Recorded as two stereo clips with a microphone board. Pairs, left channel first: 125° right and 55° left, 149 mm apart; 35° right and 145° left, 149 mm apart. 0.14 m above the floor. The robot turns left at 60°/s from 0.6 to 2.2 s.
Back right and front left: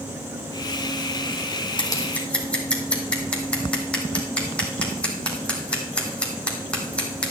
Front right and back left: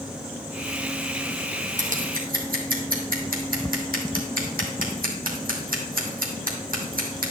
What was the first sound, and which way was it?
Scissors, straight behind.